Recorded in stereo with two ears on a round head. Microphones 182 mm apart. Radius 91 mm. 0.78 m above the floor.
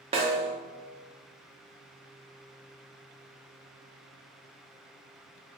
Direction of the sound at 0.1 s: 30° right (ahead or behind).